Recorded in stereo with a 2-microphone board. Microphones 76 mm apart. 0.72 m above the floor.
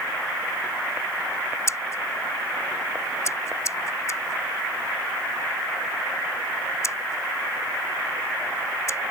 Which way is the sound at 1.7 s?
45° left (ahead or behind).